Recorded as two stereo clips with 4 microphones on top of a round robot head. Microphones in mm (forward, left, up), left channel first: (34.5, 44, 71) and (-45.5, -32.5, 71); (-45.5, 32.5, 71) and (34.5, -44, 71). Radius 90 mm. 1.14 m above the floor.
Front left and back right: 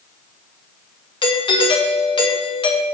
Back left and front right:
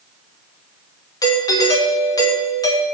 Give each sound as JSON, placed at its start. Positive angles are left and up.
{"t": 1.2, "sound": "a doorbell", "azimuth_deg": 80, "distance_m": 3.0}